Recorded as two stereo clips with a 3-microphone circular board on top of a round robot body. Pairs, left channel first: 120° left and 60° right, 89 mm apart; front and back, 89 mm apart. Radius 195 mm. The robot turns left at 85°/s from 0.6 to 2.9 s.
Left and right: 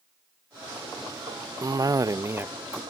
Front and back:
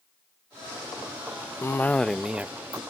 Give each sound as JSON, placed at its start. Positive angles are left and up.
{"t": 1.6, "sound": "a cough", "azimuth_deg": -40}